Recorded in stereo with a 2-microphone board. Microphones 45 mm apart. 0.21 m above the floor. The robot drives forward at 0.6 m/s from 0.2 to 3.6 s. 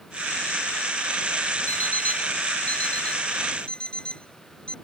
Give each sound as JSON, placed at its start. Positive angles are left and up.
{"t": 1.7, "sound": "an alarm clock", "side_deg": 45}